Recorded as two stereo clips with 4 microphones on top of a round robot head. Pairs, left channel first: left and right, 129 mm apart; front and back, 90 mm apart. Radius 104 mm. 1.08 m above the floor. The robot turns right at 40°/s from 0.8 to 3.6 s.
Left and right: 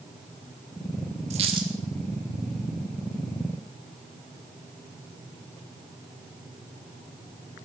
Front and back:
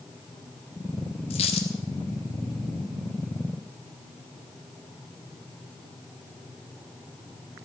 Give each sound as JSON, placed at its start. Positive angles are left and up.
{"t": 1.3, "sound": "a dropped coin", "azimuth_deg": -40, "distance_m": 1.1}